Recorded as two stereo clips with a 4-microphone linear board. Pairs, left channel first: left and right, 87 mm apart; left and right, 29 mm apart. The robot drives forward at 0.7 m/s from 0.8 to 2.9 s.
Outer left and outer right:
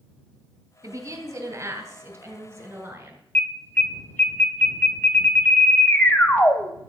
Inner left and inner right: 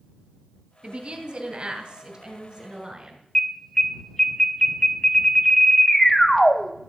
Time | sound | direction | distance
0.8 | a woman speaking | 45° right (ahead or behind) | 2.5 m
3.4 | an alarm | 20° left (ahead or behind) | 1.2 m